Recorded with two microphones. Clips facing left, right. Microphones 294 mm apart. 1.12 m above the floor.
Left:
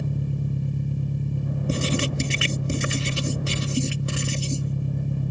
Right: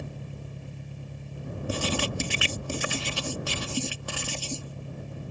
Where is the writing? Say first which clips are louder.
Left 4 dB; 25° left (ahead or behind).